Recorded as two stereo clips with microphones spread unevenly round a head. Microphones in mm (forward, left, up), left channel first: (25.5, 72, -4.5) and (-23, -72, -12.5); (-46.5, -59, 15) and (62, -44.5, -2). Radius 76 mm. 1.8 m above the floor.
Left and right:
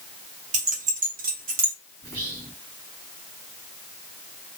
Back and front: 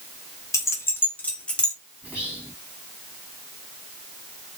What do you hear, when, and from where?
0.5 s keys jangling: 130° right, 1.4 m; by 1.7 s 100° right, 1.7 m
2.0 s whispering: 80° right, 2.5 m